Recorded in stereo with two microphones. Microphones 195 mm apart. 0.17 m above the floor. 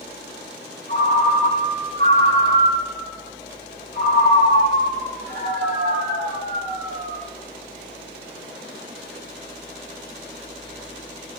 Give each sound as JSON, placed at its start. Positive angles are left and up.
{"t": 0.9, "sound": "a ringtone", "side_deg": -60, "distance_m": 2.0}